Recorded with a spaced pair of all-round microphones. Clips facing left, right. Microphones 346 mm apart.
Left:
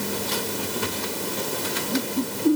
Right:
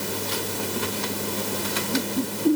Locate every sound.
Only background noise.